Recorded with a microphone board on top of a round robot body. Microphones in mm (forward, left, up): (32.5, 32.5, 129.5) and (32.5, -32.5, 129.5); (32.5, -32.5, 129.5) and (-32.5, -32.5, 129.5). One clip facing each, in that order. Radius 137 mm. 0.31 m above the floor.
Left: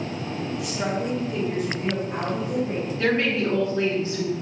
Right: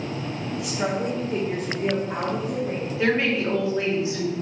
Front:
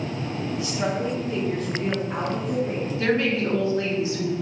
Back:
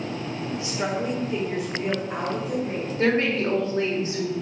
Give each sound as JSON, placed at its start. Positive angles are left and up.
{"t": 0.6, "sound": "a woman speaking", "azimuth_deg": 175, "distance_m": 1.0}
{"t": 3.0, "sound": "a woman speaking", "azimuth_deg": -160, "distance_m": 1.9}